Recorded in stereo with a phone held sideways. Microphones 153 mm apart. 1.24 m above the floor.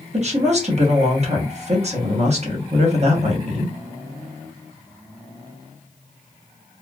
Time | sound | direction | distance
0.1 | a woman speaking | 45° right (ahead or behind) | 1.0 m